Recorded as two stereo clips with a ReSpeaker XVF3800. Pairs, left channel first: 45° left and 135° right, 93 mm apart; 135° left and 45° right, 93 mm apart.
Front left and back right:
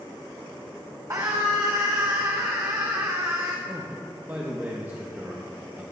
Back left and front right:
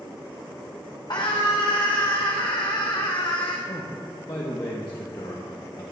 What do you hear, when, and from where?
1.1 s a scream: 175° left, 0.8 m
3.7 s a man speaking: 165° left, 1.0 m